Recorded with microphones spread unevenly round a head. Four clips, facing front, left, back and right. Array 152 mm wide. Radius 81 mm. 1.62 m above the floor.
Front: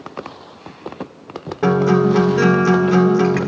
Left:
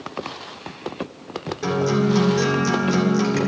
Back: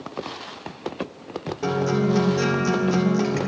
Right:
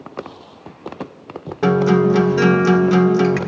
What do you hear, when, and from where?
1.6 s a guitar: 20° right, 1.9 m